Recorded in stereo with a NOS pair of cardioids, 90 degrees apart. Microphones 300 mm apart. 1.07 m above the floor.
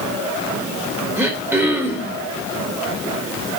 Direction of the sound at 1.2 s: 10° right.